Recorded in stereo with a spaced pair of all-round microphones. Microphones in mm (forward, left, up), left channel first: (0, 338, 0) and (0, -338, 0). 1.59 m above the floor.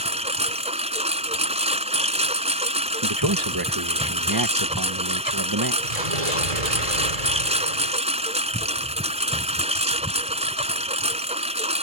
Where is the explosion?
60° right (ahead or behind).